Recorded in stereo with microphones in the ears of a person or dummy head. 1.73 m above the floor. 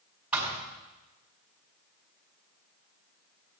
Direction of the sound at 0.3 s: 5° right (ahead or behind).